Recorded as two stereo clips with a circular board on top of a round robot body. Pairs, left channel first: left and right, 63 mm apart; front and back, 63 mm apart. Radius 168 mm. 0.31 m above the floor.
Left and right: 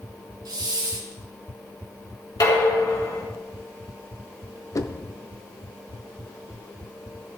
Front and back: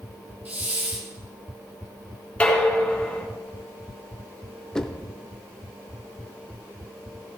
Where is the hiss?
115° right, 2.5 m.